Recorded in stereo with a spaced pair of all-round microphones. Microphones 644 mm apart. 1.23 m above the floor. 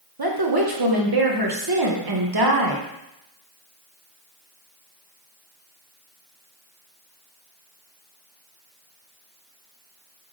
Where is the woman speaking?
40° right (ahead or behind), 0.9 m.